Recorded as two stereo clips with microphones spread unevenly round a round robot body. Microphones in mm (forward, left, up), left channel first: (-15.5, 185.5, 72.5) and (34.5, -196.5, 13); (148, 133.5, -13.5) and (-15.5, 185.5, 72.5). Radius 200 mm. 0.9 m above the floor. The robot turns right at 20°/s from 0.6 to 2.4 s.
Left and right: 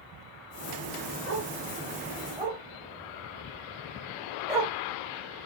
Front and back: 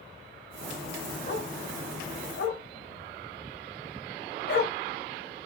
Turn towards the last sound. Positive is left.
turn(degrees=0)